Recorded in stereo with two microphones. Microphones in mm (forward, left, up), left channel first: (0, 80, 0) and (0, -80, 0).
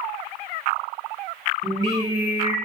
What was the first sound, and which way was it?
Singing, 25° right (ahead or behind).